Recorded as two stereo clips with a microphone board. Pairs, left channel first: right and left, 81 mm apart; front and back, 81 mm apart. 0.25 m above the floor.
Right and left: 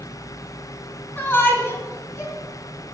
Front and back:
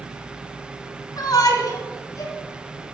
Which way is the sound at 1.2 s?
30° right.